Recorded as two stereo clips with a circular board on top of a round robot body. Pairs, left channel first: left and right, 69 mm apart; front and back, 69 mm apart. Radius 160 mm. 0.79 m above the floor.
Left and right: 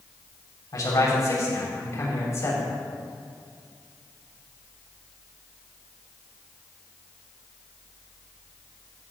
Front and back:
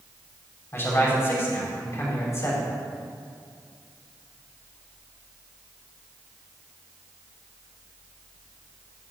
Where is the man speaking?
55° left, 5.5 m; by 2.7 s 45° left, 5 m.